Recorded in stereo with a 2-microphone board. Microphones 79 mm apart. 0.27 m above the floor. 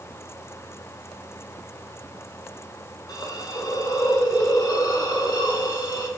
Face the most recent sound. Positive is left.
turn(degrees=50)  # may be behind; listen again after turning